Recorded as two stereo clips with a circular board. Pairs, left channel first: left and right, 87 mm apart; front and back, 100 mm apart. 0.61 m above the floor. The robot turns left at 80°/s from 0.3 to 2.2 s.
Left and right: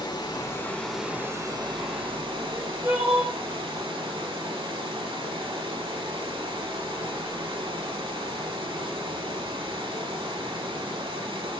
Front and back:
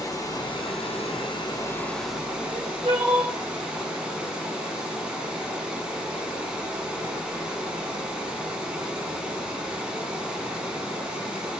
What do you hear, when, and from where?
0.0 s running water: 50° left, 1.0 m; by 11.6 s 100° right, 1.0 m
2.4 s crying: 150° right, 2.5 m